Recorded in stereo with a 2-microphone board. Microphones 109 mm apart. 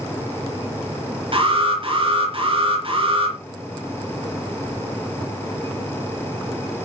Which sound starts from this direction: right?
An alarm, at 1.3 s.